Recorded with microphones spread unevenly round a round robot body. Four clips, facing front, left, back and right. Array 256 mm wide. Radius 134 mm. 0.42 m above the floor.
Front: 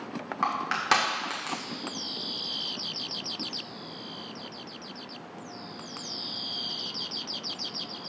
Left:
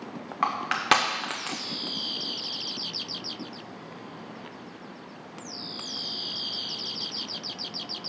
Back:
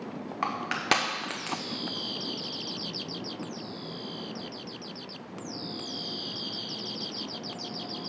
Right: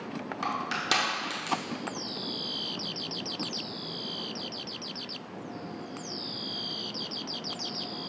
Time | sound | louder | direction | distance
0.4 | crushing | left 7 dB, front 2 dB | 145° left | 0.9 m